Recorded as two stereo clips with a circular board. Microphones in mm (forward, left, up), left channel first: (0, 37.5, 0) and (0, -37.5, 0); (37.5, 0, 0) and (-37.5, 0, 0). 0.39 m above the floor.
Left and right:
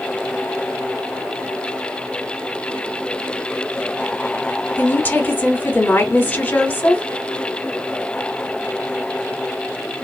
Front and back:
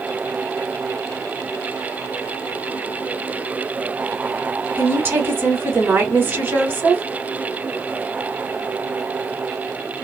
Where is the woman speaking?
135° left, 1.1 m.